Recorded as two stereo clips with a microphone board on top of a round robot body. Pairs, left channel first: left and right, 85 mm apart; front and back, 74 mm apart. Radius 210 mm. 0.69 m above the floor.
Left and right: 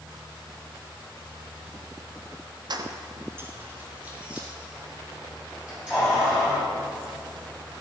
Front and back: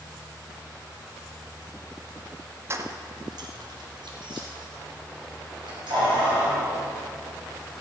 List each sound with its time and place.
2.7 s keys jangling: 125° right, 0.8 m; by 6.7 s 175° right, 5 m